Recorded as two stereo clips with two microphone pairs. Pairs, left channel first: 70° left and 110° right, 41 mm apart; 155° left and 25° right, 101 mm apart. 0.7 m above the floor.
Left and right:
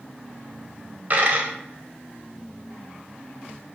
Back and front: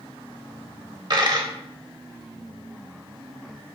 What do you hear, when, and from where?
1.1 s a dropped coin: 70° right, 0.8 m